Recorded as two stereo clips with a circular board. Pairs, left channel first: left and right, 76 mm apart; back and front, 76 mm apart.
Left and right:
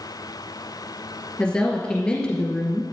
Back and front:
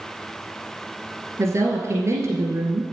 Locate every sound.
1.4 s a woman speaking: 15° left, 1.6 m